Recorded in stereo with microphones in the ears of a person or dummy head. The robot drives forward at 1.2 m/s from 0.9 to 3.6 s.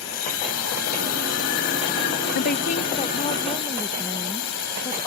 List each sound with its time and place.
0.0 s a drone: 85° left; by 5.1 s 75° left (ahead or behind)
2.4 s a woman speaking: 50° left (ahead or behind); by 5.1 s 15° left (ahead or behind)